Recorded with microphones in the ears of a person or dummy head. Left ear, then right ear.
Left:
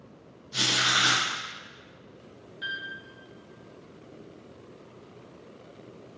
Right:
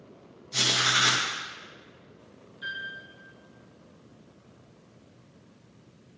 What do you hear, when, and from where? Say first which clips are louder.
0.5 s writing: even; 10° right (ahead or behind), 0.6 m
2.6 s a piano: left 1 dB; 25° left (ahead or behind), 0.8 m